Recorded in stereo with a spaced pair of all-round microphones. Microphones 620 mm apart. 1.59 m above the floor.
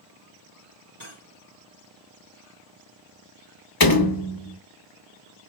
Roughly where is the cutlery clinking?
Right.